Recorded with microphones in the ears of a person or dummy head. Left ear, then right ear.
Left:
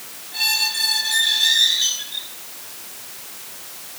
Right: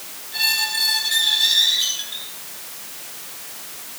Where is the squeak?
5° right (ahead or behind), 2.5 m.